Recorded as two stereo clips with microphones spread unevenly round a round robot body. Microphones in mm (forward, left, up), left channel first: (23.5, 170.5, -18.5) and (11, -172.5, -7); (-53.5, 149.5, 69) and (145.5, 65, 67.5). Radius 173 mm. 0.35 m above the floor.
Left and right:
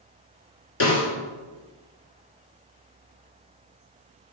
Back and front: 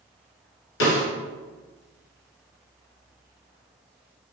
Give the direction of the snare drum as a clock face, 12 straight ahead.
7 o'clock.